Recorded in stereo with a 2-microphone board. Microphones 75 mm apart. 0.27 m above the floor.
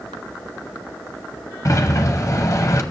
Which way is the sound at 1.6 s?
45° left (ahead or behind).